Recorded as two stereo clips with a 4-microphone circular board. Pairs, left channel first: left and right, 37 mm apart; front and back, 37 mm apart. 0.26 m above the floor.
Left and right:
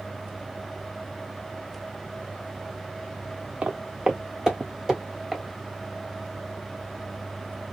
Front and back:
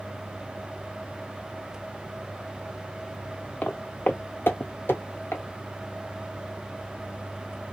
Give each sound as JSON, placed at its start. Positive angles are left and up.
{"t": 3.6, "sound": "footsteps", "azimuth_deg": -40, "distance_m": 0.6}